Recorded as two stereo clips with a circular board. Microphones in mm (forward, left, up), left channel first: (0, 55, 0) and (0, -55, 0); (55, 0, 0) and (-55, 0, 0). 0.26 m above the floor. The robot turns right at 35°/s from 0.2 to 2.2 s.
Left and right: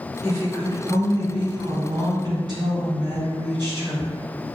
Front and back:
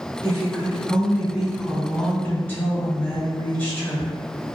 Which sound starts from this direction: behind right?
A woman speaking, at 0.2 s.